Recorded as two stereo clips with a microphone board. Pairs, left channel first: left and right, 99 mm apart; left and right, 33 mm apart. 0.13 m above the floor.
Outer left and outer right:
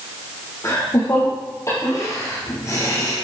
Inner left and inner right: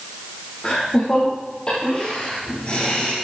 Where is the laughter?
30° left (ahead or behind), 3.5 m.